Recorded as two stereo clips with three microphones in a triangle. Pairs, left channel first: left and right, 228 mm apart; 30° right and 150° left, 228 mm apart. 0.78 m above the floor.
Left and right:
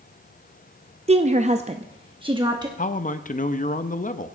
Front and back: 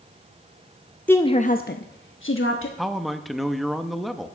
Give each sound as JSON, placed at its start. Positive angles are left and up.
{"t": 1.1, "sound": "a woman speaking", "azimuth_deg": -105, "distance_m": 0.5}
{"t": 2.8, "sound": "a man speaking", "azimuth_deg": 60, "distance_m": 0.7}